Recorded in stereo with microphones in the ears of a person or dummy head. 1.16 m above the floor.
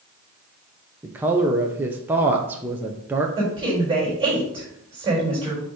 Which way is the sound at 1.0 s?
10° right (ahead or behind).